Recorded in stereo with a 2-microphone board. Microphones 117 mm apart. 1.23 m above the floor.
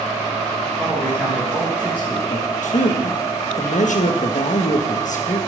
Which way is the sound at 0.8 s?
15° right (ahead or behind).